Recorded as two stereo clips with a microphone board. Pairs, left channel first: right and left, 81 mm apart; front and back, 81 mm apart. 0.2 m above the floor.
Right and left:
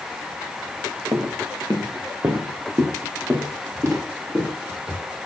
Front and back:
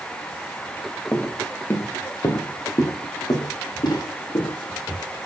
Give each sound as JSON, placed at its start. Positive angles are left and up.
{"t": 1.1, "sound": "footsteps", "azimuth_deg": 70, "distance_m": 1.4}